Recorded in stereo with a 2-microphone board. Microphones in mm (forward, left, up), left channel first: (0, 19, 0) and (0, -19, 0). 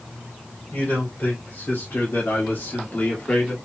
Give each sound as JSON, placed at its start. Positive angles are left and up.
{"t": 0.7, "sound": "a man speaking", "side_deg": 50, "distance_m": 3.5}